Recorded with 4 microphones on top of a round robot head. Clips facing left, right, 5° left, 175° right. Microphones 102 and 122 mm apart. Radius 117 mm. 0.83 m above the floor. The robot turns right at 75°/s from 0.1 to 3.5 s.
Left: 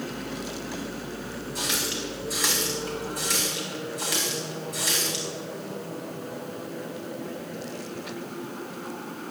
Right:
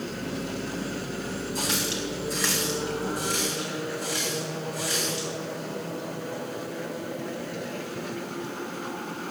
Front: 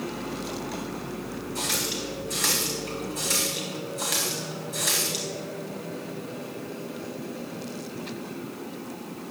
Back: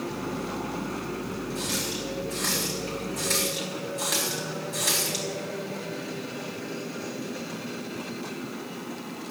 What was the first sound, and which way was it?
A running tap, 55° right.